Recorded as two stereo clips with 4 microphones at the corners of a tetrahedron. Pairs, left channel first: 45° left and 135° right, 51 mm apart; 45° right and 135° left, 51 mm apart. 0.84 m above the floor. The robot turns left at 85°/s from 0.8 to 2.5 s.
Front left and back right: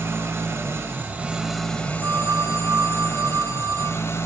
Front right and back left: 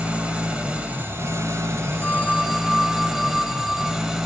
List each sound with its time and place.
0.0 s an engine running: 160° right, 1.4 m; by 4.3 s 55° left, 1.4 m
2.0 s a phone ringing: 90° right, 1.3 m; by 4.0 s 135° right, 1.3 m